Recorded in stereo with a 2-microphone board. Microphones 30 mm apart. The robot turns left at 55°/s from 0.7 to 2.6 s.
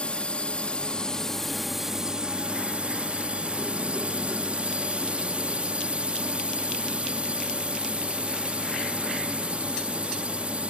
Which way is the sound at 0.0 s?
50° left.